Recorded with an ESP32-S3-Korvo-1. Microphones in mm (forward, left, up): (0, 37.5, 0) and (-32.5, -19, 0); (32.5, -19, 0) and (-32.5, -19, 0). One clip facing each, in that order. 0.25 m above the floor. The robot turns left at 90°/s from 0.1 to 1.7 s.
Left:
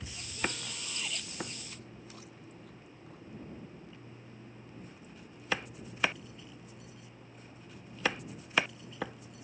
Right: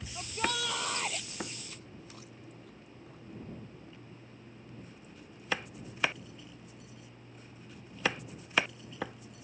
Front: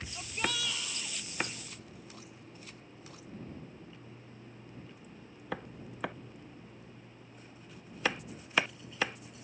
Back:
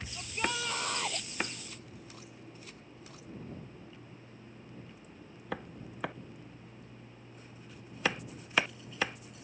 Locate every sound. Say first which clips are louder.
0.1 s a shout: right 4 dB, back 1 dB; 80° right; by 1.3 s straight behind